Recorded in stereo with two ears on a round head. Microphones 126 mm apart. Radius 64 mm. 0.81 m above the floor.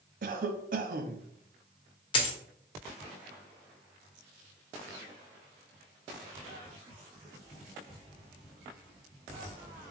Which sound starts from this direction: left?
A dropped coin, at 2.1 s.